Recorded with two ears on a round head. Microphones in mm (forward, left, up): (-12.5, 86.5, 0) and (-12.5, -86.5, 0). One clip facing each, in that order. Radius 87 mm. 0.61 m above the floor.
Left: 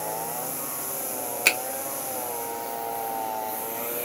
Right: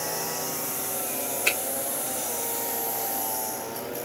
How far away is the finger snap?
About 2.0 m.